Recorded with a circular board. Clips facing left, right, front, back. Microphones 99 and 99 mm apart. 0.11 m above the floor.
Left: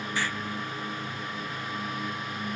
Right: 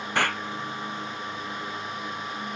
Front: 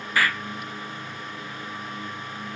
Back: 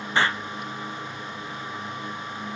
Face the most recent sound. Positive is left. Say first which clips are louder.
# right 7 dB, back 1 dB
turn(degrees=-115)